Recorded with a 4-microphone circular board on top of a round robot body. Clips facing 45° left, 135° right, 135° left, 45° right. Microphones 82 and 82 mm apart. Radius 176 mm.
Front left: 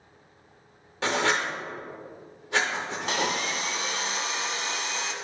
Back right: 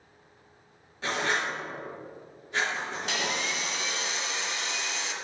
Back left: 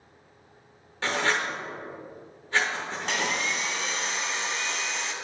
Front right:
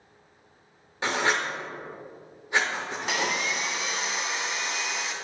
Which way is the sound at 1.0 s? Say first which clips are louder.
Front left 3 dB, front right 1 dB; 30° left.